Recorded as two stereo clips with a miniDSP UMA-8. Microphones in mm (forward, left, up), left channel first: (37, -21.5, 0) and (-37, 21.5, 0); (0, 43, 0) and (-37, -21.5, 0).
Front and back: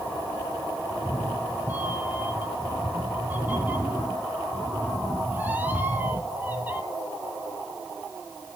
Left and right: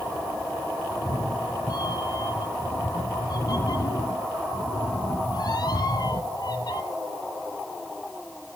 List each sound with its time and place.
0.9 s a cat meowing: 80° left, 1.5 m